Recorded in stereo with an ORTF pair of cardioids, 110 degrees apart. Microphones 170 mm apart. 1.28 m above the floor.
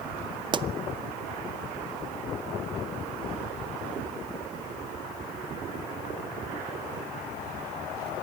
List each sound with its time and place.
0.5 s a pop: 30° right, 0.7 m